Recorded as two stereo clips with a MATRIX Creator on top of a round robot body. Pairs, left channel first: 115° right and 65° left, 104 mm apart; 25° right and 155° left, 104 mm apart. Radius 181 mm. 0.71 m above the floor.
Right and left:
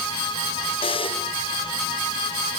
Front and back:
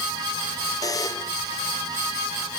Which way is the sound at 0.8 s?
80° right.